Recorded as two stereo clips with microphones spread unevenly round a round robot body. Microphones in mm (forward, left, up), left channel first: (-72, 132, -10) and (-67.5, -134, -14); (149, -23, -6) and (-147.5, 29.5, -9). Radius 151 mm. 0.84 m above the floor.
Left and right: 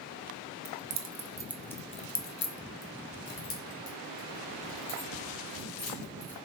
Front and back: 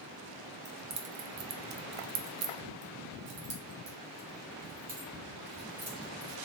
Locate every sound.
0.7 s keys jangling: 125° right, 0.7 m; by 6.3 s 105° left, 2.5 m